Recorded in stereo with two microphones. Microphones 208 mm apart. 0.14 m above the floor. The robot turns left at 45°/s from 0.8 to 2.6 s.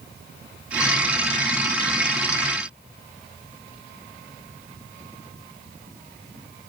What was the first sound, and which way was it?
Only background noise.